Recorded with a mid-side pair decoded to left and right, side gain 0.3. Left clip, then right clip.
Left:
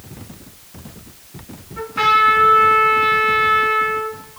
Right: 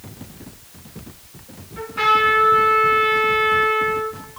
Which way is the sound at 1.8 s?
40° left.